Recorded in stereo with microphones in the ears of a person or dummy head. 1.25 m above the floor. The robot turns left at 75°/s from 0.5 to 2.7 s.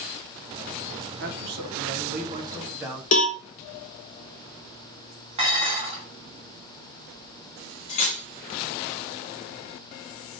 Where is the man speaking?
65° right, 1.9 m; by 3.0 s 175° right, 1.9 m.